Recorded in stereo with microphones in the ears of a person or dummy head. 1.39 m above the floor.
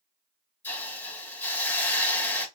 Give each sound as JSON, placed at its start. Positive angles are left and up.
{"t": 0.6, "sound": "a hiss", "side_deg": 10, "distance_m": 1.6}